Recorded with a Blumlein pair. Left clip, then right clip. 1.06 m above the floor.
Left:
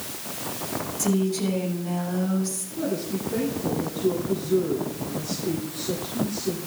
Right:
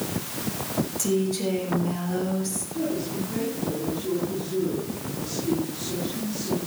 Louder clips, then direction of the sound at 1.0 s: Even; 10° right.